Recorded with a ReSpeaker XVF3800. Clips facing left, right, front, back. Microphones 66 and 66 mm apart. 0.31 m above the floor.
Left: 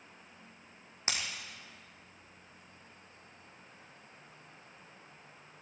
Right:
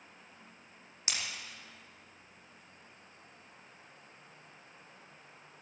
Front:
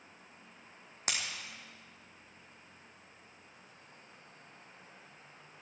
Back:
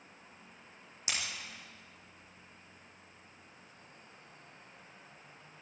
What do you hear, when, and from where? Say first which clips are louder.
1.1 s breaking glass: left 2 dB, front 1 dB; 35° left, 3 m